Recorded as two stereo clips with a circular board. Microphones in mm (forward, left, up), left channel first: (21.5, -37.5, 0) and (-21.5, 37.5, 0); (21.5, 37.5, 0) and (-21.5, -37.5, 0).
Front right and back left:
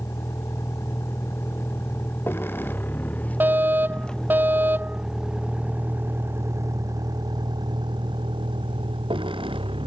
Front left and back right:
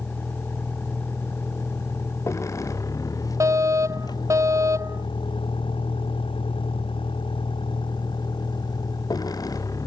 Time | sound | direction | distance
0.0 | a vehicle | 5° right | ?
3.4 | a fire alarm | 175° right | ?